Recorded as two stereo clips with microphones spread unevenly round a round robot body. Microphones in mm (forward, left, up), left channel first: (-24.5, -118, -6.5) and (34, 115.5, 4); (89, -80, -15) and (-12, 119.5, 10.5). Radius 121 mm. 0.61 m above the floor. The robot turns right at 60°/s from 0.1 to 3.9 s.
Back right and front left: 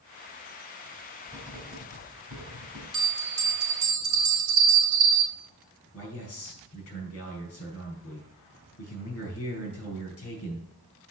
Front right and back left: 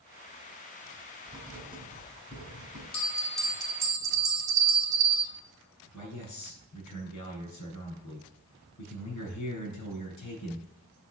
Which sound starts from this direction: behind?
Writing, at 1.3 s.